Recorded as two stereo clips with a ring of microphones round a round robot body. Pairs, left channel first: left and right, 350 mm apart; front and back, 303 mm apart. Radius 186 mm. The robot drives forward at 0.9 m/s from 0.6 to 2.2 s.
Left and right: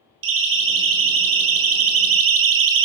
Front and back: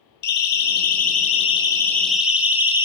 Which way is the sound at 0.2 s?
60° right.